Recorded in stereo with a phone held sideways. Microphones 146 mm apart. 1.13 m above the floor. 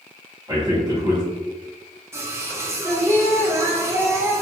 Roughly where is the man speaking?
Right.